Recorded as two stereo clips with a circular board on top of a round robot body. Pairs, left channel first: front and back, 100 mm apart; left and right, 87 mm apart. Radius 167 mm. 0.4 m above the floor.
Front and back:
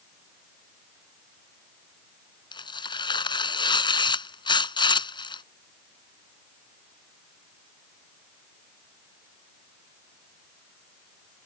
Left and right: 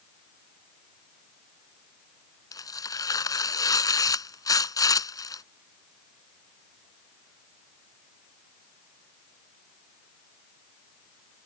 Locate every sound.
2.5 s tearing paper: 40° left